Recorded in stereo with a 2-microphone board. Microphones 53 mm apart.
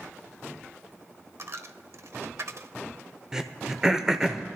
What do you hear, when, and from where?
1.4 s a dropped coin: 60° right (ahead or behind), 0.7 m
3.3 s throat clearing: 15° right (ahead or behind), 0.9 m